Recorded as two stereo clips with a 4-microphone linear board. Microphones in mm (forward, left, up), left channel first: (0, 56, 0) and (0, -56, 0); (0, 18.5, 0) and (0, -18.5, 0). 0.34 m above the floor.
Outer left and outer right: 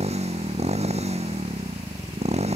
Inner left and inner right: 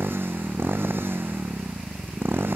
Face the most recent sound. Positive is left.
turn(degrees=-75)  # may be behind; listen again after turning